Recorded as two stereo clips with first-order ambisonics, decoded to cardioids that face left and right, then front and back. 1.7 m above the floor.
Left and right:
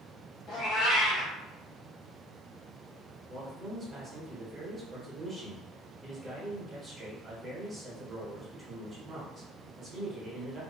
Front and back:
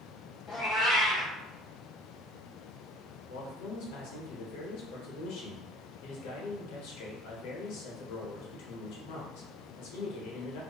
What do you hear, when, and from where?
0.5 s a cat meowing: 60° left, 1.2 m
3.3 s a man speaking: 15° right, 0.8 m